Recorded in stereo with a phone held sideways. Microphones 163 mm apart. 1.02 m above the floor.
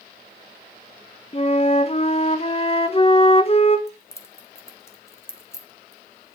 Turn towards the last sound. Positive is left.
turn(degrees=15)  # may be behind; listen again after turning